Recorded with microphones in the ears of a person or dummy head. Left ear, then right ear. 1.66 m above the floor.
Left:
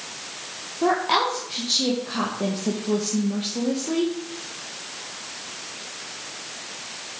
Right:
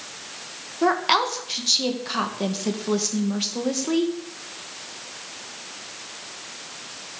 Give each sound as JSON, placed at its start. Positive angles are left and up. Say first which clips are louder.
{"t": 0.8, "sound": "a woman speaking", "louder": "right 1 dB", "side_deg": -70, "distance_m": 1.7}